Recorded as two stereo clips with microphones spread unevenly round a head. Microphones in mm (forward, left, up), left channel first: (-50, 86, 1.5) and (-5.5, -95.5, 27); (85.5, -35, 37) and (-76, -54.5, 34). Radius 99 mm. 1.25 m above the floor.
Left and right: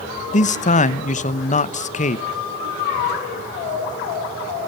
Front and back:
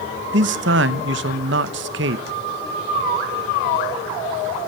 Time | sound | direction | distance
0.3 | a man speaking | 155° left | 0.8 m